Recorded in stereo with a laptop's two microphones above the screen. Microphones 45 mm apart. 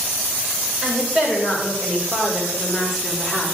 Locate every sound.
0.8 s a woman speaking: 25° right (ahead or behind), 4 m; by 3.5 s 20° left (ahead or behind), 2.5 m